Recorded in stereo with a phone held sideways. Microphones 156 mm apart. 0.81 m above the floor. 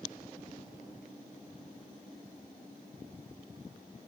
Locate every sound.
Only background noise.